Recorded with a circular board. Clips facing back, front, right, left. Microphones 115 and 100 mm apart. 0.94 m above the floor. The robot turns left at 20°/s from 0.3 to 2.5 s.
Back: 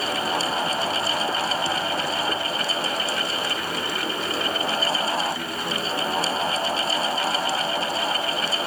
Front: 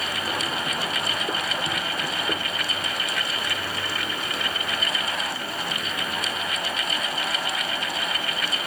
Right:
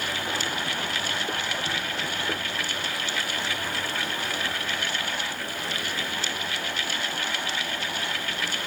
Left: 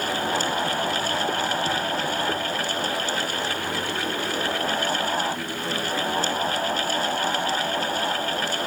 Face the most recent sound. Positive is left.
No sound to turn to.